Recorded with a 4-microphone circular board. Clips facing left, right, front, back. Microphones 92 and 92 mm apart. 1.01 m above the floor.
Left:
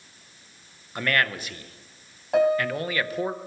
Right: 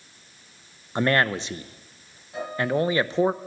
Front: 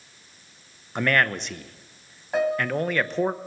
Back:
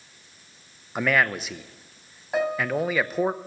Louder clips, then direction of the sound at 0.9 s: Right 4 dB, even; 105° right.